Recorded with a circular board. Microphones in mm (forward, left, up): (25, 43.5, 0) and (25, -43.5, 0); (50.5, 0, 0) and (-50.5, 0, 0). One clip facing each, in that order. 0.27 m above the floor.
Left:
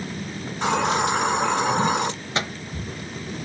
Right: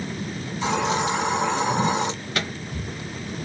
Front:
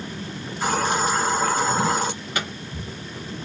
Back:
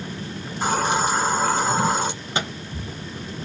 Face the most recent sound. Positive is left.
turn(degrees=135)